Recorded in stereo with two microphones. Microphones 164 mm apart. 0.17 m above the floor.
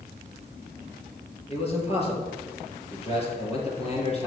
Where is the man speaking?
35° left (ahead or behind), 3 m.